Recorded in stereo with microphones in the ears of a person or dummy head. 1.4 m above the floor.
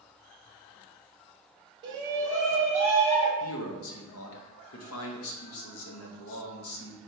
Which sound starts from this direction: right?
A shout, at 1.8 s.